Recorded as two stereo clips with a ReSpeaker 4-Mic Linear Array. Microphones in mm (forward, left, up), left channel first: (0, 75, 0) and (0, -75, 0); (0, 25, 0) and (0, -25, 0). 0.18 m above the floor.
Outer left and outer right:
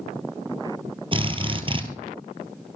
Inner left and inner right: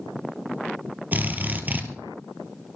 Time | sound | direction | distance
1.1 | a drill | 35° right (ahead or behind) | 1.6 m